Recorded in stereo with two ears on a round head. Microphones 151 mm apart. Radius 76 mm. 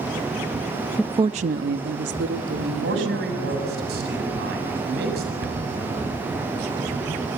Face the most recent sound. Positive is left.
turn(degrees=-70)  # may be behind; listen again after turning